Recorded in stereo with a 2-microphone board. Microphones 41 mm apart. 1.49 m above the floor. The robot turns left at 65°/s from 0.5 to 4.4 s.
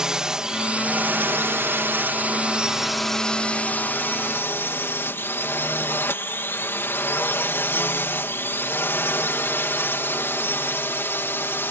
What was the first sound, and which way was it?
A drone, 20° right.